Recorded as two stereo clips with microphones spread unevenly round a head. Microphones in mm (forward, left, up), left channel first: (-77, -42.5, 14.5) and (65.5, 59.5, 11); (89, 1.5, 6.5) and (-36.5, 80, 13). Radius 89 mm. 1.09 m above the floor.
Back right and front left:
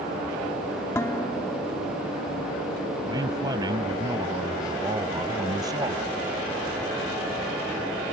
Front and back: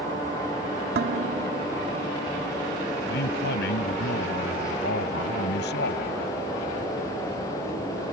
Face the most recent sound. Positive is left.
turn(degrees=-35)